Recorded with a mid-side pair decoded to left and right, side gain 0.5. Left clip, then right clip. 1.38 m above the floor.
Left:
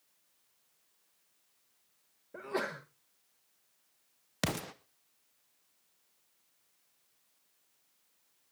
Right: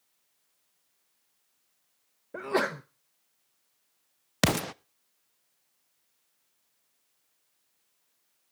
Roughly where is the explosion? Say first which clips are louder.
Right 9 dB; ahead right.